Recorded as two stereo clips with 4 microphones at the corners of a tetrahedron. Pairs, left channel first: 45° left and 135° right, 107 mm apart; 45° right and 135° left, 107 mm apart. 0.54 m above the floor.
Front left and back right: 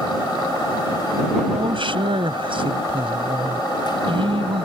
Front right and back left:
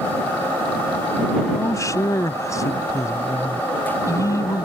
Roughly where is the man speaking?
Right.